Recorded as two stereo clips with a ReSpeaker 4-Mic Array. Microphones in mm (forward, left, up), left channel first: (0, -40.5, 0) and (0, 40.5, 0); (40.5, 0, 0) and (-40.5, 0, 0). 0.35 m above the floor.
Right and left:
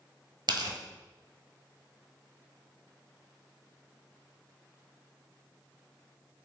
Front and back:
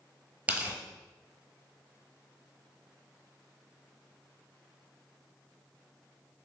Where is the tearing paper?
110° left, 1.0 m.